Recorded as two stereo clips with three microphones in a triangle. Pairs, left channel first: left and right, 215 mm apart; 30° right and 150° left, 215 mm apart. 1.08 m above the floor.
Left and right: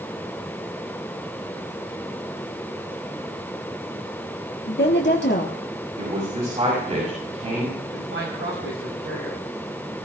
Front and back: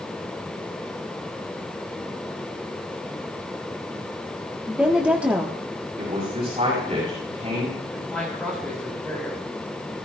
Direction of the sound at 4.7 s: 65° left.